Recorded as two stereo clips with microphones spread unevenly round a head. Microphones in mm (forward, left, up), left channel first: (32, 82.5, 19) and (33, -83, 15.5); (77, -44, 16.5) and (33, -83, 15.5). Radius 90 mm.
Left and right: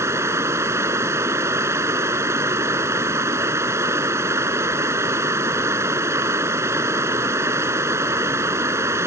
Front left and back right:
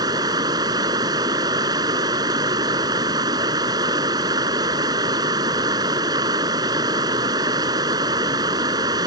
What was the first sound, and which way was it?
Running water, 165° right.